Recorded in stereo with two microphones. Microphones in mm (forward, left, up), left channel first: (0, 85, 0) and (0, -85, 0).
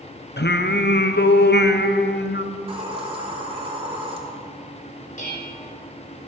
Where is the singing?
80° left, 0.8 m.